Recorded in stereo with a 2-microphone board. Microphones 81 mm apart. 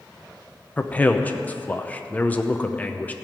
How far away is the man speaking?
About 0.8 m.